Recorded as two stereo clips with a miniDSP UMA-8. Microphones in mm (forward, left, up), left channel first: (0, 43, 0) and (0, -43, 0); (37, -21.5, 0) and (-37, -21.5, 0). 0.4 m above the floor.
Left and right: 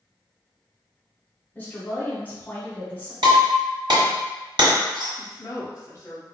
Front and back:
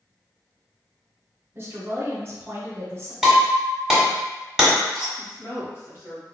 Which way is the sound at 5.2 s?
45° left.